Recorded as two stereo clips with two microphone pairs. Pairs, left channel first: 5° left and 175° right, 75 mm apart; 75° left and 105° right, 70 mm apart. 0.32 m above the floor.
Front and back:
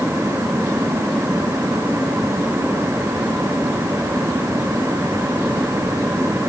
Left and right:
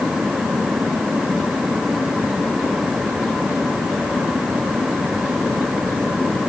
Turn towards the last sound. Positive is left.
No sound to turn to.